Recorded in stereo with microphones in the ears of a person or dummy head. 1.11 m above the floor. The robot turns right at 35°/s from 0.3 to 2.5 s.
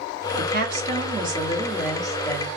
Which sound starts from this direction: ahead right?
A woman speaking, at 0.4 s.